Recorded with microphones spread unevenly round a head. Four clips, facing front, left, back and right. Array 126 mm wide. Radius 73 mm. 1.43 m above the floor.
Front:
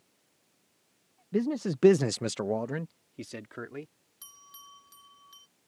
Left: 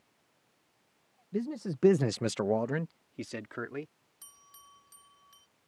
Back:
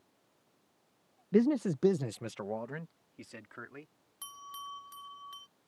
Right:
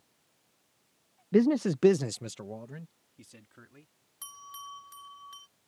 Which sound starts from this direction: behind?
A bell, at 4.2 s.